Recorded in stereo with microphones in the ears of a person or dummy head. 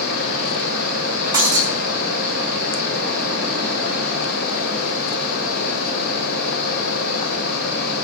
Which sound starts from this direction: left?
A fan, at 0.0 s.